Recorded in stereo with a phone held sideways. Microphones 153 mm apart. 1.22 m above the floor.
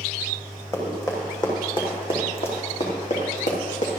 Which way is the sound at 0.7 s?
20° left (ahead or behind).